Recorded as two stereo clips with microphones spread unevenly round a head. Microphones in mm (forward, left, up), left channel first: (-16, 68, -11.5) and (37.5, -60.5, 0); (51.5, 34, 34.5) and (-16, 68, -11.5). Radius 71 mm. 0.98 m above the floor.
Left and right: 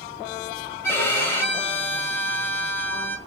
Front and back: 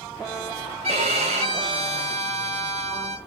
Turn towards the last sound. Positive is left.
turn(degrees=-170)